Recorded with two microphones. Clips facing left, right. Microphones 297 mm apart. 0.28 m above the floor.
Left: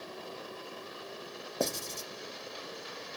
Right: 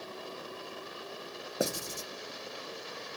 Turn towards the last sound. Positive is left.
turn(degrees=-10)  # may be behind; listen again after turning